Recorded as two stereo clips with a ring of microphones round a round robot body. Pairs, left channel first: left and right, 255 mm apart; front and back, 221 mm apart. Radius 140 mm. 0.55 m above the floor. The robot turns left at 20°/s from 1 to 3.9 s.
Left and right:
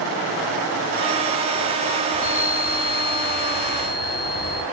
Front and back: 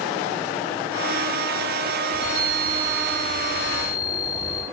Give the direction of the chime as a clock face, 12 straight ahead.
8 o'clock.